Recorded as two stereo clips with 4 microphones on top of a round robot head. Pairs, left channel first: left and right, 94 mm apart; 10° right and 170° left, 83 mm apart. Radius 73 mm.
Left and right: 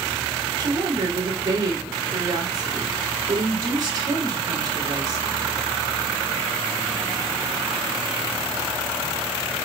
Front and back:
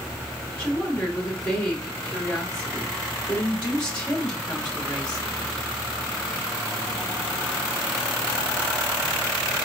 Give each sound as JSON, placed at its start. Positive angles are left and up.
{"t": 0.6, "sound": "a woman speaking", "azimuth_deg": -80, "distance_m": 1.6}